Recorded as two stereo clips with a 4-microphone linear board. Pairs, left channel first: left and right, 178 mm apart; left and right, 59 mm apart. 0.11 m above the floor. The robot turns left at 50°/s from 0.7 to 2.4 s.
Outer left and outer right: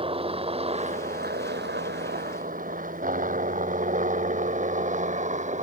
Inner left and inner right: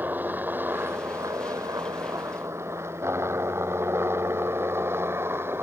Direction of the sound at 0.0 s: 30° right (ahead or behind).